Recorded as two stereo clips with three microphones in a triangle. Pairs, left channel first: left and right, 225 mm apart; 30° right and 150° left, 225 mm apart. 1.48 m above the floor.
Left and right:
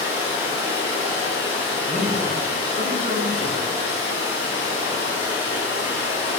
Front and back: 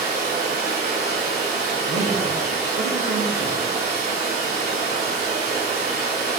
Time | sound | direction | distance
0.0 | running water | 170° right | 2 m
1.9 | a man speaking | 140° left | 0.8 m